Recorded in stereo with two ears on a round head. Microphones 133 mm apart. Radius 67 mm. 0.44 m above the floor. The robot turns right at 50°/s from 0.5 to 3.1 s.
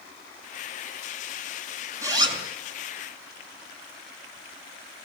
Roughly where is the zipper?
Centre.